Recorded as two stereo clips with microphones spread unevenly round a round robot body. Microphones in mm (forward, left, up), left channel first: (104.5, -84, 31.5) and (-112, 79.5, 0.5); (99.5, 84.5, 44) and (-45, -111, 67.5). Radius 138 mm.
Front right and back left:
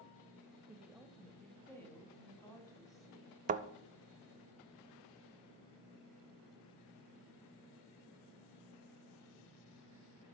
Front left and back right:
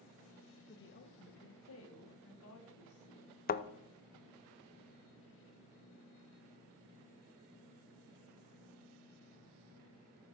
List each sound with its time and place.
0.7 s a woman speaking: 65° left, 1.2 m; by 3.4 s 40° left, 3.5 m
3.5 s a thud: 95° left, 0.6 m